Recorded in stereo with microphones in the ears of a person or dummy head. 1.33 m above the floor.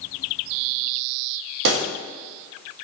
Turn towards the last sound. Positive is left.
turn(degrees=-65)  # may be behind; listen again after turning